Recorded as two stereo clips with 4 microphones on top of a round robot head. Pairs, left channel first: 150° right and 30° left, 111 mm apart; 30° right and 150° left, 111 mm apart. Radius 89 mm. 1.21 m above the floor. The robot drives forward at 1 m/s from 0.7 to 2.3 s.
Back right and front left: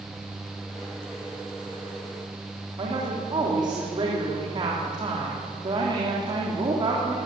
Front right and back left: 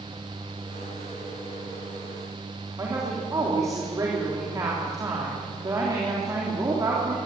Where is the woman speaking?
85° left, 3.5 m.